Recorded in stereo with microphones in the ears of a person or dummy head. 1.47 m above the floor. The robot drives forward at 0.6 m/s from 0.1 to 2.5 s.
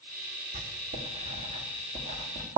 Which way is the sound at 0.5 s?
40° right (ahead or behind).